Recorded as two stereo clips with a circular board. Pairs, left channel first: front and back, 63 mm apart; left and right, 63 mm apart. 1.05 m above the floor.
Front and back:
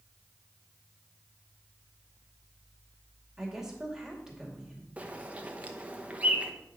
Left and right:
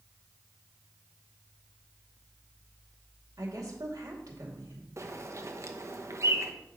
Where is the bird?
115° right, 0.9 m.